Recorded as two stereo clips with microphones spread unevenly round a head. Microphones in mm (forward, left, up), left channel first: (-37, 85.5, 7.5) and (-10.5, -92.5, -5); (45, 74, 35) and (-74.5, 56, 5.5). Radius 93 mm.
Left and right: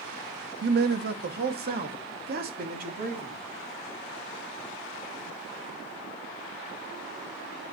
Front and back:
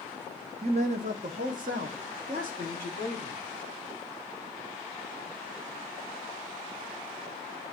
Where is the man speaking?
105° right, 0.8 m; by 3.4 s 120° right, 3 m.